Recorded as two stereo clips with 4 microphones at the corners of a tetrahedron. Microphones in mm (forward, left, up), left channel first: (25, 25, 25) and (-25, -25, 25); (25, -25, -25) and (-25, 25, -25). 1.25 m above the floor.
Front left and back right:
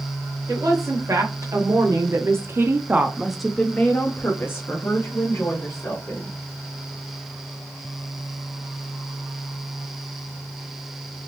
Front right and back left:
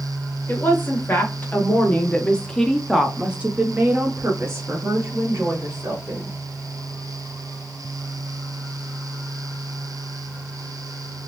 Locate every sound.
0.5 s a woman speaking: 100° right, 1.4 m; by 6.4 s 85° left, 1.7 m